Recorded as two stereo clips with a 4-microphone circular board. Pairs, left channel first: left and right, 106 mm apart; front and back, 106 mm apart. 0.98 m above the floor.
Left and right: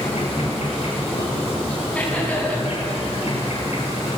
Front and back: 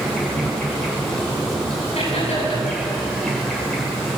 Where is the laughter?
10° left, 9 m.